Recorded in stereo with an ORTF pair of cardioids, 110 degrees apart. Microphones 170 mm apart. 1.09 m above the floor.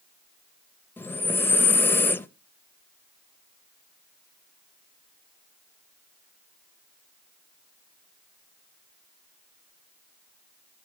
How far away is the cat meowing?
No cat meowing in this recording.